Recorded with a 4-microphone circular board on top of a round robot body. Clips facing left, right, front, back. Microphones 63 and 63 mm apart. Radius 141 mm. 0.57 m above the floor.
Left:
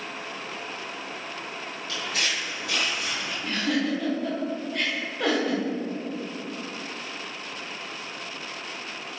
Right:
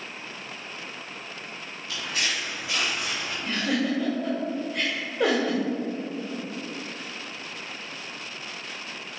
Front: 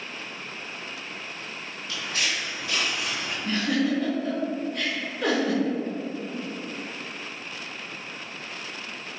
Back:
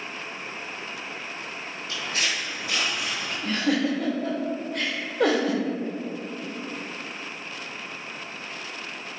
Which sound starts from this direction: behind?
A giggle, at 3.4 s.